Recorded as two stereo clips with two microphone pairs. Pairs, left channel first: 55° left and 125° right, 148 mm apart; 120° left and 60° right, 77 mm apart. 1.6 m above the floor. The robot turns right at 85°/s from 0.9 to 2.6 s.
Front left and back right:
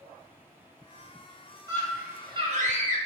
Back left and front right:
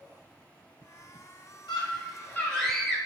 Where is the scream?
130° left, 0.8 m; by 3.0 s 155° right, 0.8 m.